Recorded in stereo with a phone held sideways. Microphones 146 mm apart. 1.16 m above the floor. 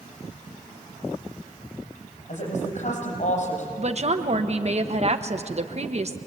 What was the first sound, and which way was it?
A woman speaking, 60° left (ahead or behind).